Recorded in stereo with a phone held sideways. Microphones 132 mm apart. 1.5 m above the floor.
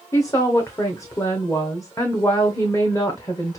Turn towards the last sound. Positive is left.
turn(degrees=25)  # may be behind; listen again after turning